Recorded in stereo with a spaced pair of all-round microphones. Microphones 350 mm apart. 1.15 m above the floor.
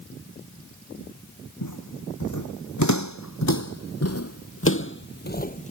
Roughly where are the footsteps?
Left.